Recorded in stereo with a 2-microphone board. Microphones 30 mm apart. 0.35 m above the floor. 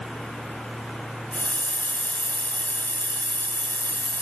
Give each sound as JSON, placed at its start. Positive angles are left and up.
{"t": 1.3, "sound": "a hiss", "side_deg": 75, "distance_m": 4.5}